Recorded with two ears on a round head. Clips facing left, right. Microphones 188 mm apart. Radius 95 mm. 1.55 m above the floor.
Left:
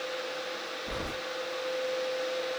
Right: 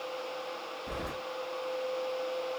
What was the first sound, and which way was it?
Keys jangling, 25° right (ahead or behind).